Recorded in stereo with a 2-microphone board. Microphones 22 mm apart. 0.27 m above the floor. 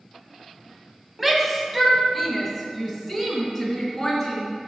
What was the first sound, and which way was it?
A shout, 10° right (ahead or behind).